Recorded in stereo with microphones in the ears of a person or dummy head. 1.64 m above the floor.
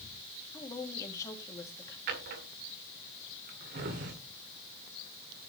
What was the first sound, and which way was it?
A woman speaking, 20° left (ahead or behind).